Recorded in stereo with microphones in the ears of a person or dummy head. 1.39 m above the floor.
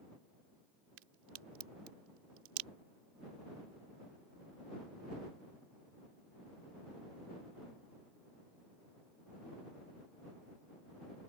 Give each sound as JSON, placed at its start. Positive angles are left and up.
{"t": 1.0, "sound": "a crack", "side_deg": -85}